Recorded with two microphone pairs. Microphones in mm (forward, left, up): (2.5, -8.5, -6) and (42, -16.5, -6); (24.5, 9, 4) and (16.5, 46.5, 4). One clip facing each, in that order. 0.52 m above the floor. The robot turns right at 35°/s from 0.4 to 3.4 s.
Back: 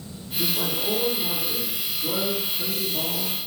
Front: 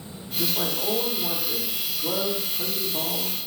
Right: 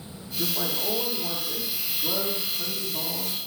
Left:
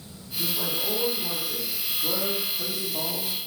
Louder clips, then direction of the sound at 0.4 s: Back 1 dB, even; 50° right.